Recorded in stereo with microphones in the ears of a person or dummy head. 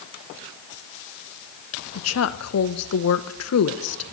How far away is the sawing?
I don't hear sawing.